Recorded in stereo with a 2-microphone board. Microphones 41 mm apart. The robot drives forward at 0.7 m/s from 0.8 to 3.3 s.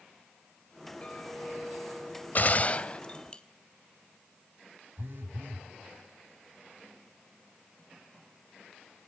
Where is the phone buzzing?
60° right (ahead or behind), 2 m.